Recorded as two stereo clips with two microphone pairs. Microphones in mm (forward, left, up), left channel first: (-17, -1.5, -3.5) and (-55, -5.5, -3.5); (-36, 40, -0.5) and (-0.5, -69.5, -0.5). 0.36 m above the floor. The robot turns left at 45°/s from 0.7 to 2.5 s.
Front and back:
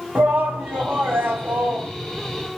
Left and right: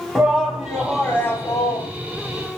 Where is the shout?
155° right, 2.5 m; by 1.9 s 150° left, 2.5 m.